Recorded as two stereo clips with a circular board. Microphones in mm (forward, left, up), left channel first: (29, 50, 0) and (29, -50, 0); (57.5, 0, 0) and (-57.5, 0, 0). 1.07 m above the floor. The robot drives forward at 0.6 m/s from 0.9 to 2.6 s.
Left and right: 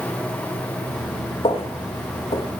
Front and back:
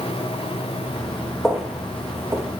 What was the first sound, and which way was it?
Footsteps, 90° left.